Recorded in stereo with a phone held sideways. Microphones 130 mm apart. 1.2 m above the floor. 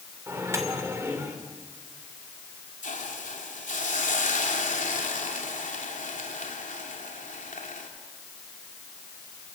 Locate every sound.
0.3 s a microwave: 20° right (ahead or behind), 3 m
2.8 s a hiss: 80° left, 3 m